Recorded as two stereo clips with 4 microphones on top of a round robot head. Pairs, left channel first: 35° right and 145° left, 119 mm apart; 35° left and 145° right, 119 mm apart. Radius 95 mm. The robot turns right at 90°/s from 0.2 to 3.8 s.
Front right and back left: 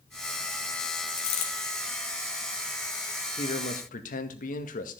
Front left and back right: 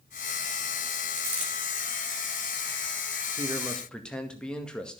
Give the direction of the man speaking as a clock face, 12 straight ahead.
3 o'clock.